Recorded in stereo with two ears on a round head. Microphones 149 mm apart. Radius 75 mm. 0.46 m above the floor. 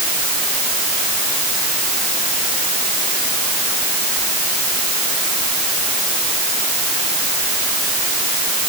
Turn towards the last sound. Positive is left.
No sound to turn to.